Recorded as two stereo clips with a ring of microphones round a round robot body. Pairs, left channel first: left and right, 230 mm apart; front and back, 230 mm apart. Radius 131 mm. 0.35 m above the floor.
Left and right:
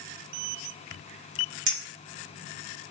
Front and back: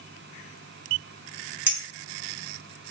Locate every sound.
1.7 s a clink: 100° right, 1.5 m